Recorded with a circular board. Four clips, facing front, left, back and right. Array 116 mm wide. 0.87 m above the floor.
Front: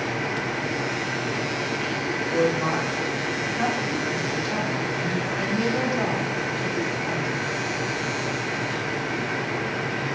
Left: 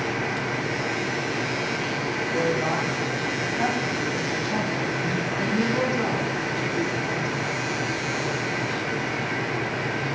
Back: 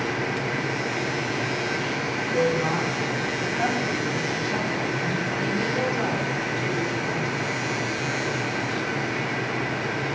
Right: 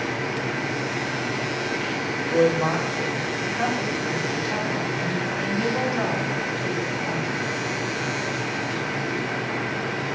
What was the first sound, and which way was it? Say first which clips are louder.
A woman speaking: right 6 dB, even; 75° right.